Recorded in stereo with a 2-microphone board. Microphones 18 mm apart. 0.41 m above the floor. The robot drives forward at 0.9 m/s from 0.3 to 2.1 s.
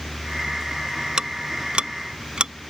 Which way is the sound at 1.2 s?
55° right (ahead or behind).